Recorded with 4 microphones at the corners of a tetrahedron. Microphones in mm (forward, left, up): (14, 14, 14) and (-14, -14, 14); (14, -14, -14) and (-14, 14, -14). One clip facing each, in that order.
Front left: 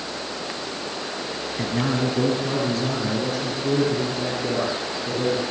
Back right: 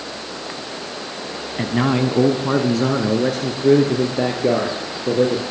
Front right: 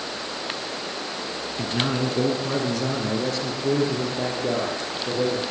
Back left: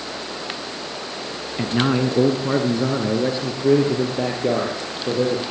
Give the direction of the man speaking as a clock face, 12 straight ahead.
6 o'clock.